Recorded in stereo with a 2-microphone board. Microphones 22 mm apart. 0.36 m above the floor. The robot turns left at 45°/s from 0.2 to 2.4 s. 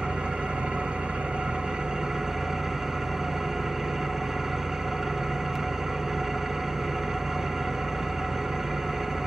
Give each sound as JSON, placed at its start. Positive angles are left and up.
{"t": 0.0, "sound": "an engine running", "azimuth_deg": -65, "distance_m": 1.7}